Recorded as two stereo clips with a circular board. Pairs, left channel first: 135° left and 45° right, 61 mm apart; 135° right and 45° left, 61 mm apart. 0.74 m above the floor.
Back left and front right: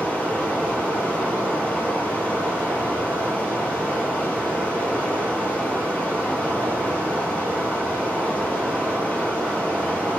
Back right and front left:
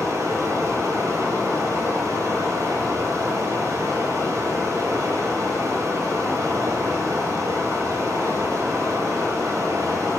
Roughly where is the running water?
Left.